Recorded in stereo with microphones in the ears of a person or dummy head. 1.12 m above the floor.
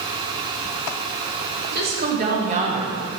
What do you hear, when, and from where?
1.6 s a woman speaking: 45° right (ahead or behind), 1.5 m; by 3.0 s 20° right (ahead or behind), 0.8 m